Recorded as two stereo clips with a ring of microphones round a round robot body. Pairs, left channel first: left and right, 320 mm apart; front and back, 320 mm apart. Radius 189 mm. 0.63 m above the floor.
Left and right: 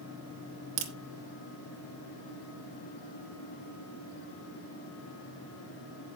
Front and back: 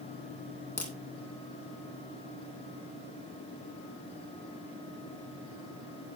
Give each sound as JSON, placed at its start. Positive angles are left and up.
{"t": 0.8, "sound": "a crack", "azimuth_deg": -80, "distance_m": 2.5}